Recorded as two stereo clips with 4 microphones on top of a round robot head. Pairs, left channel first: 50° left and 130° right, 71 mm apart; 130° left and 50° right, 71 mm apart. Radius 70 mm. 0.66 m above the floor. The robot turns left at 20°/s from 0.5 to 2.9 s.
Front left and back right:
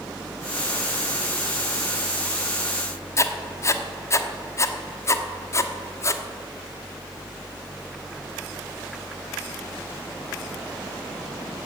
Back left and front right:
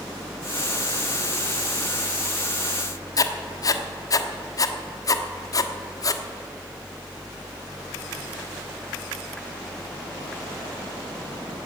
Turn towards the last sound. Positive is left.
turn(degrees=95)